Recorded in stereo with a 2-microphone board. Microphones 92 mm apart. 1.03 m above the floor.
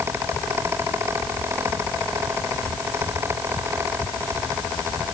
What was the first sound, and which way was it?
Only background noise.